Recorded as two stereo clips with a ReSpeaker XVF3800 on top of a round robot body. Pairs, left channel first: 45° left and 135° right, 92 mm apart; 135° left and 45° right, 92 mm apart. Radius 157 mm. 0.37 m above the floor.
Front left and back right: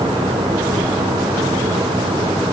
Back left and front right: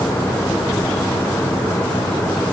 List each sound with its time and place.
Only background noise.